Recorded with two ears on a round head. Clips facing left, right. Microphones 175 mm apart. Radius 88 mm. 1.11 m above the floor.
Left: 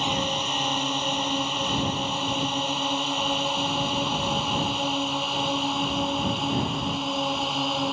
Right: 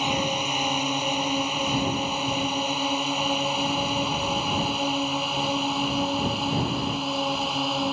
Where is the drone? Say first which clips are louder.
Right 1 dB; 5° right (ahead or behind); by 7.9 s centre (ahead or behind).